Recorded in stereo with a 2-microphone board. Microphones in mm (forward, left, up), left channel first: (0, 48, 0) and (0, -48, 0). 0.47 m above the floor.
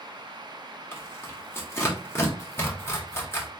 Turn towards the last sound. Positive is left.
turn(degrees=25)  # may be behind; listen again after turning